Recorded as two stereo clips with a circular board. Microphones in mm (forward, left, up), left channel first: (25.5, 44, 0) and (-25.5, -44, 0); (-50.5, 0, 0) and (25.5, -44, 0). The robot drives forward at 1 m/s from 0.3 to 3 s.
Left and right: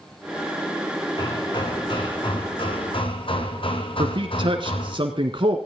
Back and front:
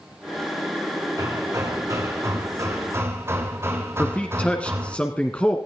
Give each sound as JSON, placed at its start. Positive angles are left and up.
{"t": 1.2, "sound": "hammering", "azimuth_deg": 20, "distance_m": 4.5}
{"t": 4.0, "sound": "a man speaking", "azimuth_deg": -140, "distance_m": 1.9}